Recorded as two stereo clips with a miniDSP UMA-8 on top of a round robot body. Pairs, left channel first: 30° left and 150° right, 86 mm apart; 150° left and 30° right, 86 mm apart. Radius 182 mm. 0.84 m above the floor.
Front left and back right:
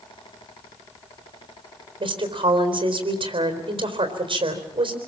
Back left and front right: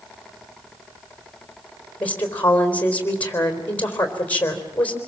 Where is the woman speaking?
140° right, 4 m.